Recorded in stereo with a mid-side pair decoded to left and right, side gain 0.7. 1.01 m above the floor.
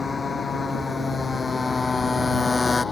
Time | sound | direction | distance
0.0 | a motorcycle | 20° left | ?